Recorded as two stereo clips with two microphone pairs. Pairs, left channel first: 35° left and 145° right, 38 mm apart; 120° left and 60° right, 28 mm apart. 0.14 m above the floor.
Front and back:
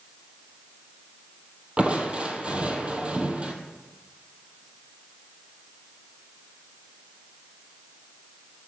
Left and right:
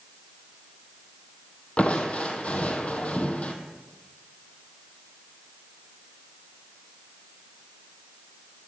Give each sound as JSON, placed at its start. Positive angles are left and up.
{"t": 1.8, "sound": "crushing", "azimuth_deg": 155, "distance_m": 1.1}